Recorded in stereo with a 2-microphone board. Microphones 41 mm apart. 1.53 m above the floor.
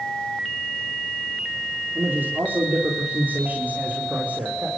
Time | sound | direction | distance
1.9 | a man speaking | 60° right (ahead or behind) | 4 m